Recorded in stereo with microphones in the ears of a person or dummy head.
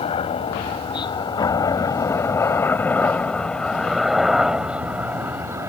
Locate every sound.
0.0 s a helicopter: 30° left (ahead or behind); by 5.7 s 10° right (ahead or behind)